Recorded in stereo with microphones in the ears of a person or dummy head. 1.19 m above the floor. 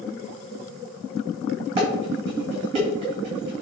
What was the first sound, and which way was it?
Dishes clattering, 30° right (ahead or behind).